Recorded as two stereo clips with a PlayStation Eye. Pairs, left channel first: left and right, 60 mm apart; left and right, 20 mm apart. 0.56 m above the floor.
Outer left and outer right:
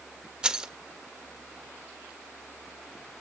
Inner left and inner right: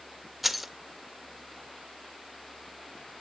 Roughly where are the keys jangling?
Centre.